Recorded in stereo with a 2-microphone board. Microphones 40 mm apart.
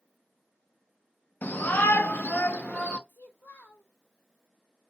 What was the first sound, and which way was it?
A shout, 55° left (ahead or behind).